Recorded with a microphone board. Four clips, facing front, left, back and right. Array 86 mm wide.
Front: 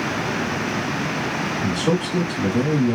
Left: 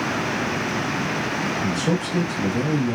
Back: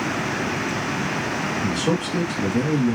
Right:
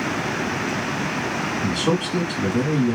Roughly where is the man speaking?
Right.